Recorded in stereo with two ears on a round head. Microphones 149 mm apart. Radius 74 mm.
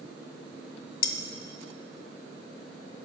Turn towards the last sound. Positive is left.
turn(degrees=55)  # may be behind; listen again after turning